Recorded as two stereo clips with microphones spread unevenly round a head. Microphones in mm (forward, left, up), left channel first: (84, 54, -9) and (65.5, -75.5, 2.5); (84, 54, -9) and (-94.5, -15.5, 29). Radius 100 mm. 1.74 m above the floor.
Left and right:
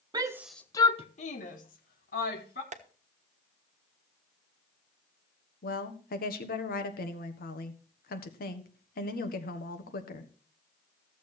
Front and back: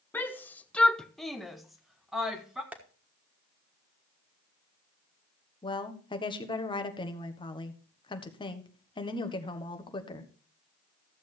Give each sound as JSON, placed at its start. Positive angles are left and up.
{"t": 0.1, "sound": "a shout", "azimuth_deg": -70, "distance_m": 0.6}
{"t": 2.7, "sound": "tapping", "azimuth_deg": -80, "distance_m": 1.2}
{"t": 5.6, "sound": "a woman speaking", "azimuth_deg": 90, "distance_m": 1.3}